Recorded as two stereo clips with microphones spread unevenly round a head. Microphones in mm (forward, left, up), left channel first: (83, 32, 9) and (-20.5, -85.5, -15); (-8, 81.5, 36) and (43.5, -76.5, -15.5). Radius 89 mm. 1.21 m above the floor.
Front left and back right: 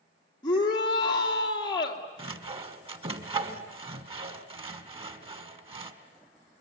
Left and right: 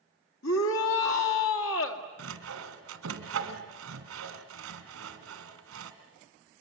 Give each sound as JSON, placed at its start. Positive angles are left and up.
{"t": 0.4, "sound": "a shout", "azimuth_deg": 115, "distance_m": 2.5}
{"t": 2.2, "sound": "sawing", "azimuth_deg": -75, "distance_m": 2.0}